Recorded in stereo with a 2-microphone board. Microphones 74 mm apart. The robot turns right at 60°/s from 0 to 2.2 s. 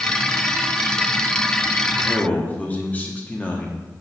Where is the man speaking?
20° left (ahead or behind), 0.8 m; by 3.8 s 25° left (ahead or behind), 0.8 m.